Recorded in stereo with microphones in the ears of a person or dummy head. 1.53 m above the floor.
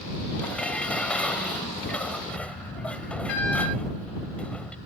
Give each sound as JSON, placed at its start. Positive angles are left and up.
{"t": 0.4, "sound": "dishes clattering", "side_deg": 10}